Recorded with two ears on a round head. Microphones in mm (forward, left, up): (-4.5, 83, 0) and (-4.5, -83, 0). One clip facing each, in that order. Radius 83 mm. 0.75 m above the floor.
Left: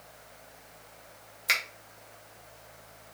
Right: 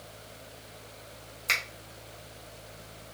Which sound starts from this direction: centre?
A finger snap, at 1.5 s.